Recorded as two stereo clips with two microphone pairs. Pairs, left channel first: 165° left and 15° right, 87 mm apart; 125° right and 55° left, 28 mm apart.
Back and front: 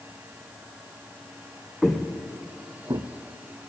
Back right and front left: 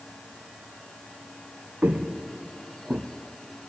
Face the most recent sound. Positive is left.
turn(degrees=-25)